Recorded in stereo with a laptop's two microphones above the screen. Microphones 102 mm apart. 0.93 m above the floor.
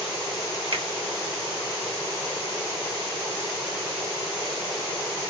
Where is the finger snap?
60° right (ahead or behind), 1.1 m.